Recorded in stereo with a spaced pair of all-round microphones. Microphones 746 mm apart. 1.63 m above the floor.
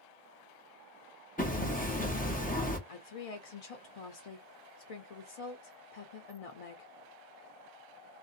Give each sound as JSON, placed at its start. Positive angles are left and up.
{"t": 1.4, "sound": "hammering", "side_deg": 10, "distance_m": 0.6}
{"t": 2.9, "sound": "a woman speaking", "side_deg": 55, "distance_m": 0.5}